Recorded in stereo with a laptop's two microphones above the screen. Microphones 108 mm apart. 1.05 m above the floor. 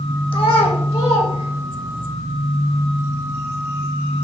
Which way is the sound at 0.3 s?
50° left (ahead or behind).